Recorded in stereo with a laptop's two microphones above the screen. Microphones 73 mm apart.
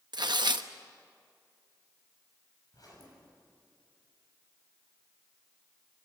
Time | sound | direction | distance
0.1 | tearing paper | 75° right (ahead or behind) | 0.9 m
2.7 | a zipper | 60° left (ahead or behind) | 6.5 m